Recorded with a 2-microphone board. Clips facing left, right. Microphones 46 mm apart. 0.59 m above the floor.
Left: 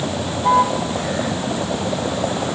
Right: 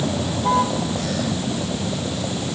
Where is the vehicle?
10° left (ahead or behind); by 2.6 s 40° left (ahead or behind).